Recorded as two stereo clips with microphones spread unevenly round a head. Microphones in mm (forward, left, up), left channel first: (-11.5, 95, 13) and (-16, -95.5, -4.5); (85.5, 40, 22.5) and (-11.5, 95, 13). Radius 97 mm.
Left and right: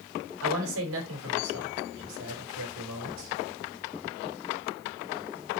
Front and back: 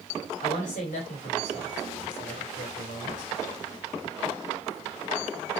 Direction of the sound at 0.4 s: 70° right.